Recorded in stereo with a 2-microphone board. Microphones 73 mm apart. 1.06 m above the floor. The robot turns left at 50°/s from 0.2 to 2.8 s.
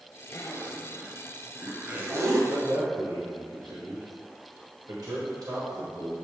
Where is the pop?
I don't hear a pop.